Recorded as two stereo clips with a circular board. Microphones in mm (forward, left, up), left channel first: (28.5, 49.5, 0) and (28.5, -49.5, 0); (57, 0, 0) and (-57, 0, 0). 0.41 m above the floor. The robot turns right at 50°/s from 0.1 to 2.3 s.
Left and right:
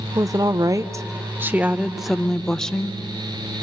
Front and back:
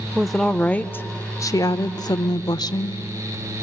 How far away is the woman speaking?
About 0.9 m.